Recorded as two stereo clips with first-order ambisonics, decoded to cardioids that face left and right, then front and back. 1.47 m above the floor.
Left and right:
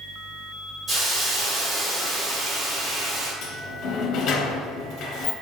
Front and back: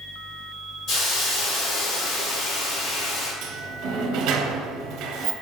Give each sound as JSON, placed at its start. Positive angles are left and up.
{"t": 0.9, "sound": "a hiss", "azimuth_deg": -20, "distance_m": 1.4}
{"t": 3.4, "sound": "a sliding door", "azimuth_deg": 135, "distance_m": 0.6}